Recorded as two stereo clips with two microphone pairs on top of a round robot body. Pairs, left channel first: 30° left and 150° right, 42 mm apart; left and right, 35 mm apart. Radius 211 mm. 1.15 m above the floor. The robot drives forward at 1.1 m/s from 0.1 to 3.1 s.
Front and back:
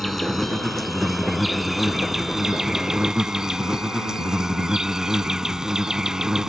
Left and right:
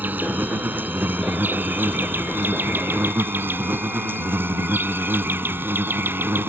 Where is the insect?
55° right; by 6.5 s 75° right.